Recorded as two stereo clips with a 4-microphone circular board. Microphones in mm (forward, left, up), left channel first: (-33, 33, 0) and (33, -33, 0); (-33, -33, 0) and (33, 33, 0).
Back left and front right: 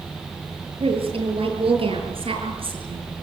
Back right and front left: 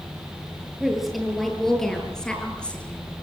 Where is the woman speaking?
45° right, 8 m; by 3.1 s 60° right, 6 m.